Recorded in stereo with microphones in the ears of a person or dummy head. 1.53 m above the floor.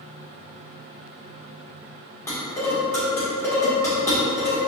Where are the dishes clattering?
15° left (ahead or behind), 1.8 m.